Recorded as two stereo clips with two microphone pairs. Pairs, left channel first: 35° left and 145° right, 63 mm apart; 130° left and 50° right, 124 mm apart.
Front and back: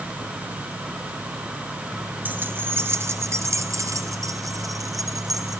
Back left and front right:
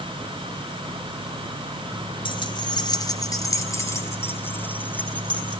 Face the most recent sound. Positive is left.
turn(degrees=-150)